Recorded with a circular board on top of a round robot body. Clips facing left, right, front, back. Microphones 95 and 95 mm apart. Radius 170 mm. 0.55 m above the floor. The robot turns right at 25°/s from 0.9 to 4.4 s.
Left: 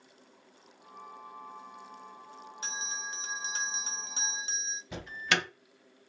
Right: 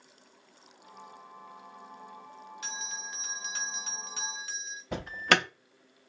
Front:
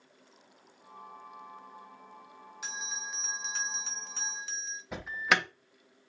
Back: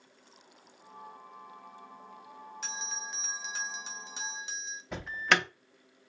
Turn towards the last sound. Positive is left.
turn(degrees=-85)